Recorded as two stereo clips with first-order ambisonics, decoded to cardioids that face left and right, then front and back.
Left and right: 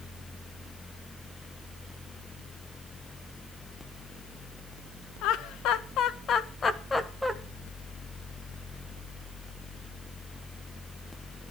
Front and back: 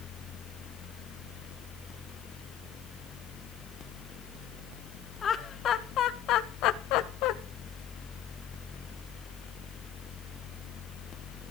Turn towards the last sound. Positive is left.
turn(degrees=0)